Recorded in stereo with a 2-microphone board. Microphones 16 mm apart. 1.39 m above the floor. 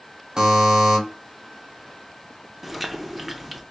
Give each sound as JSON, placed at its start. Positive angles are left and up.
{"t": 0.4, "sound": "a buzzer", "side_deg": -45, "distance_m": 1.6}
{"t": 2.6, "sound": "chewing", "side_deg": -10, "distance_m": 0.9}